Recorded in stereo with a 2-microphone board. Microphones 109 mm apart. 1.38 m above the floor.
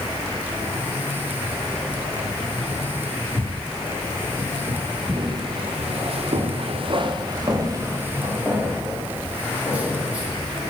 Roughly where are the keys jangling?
Centre.